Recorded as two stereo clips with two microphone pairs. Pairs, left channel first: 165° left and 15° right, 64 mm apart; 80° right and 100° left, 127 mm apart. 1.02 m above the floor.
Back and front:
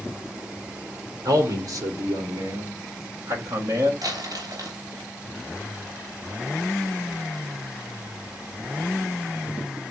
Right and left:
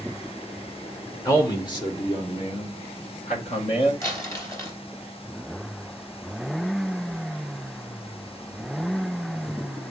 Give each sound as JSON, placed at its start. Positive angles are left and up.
{"t": 1.2, "sound": "a man speaking", "azimuth_deg": -15, "distance_m": 2.5}
{"t": 4.0, "sound": "crumpling", "azimuth_deg": -15, "distance_m": 3.0}